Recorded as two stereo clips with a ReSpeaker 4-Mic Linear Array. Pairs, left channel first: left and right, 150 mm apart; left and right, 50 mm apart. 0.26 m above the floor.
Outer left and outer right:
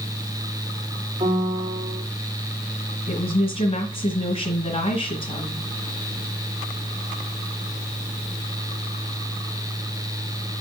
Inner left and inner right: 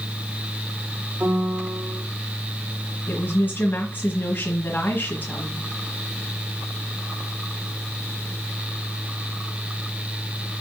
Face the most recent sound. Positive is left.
turn(degrees=45)  # may be behind; listen again after turning